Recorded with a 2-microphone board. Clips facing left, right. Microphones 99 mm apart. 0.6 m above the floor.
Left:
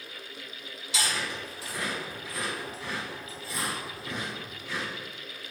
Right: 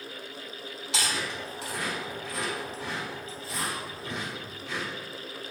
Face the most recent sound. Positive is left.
turn(degrees=-80)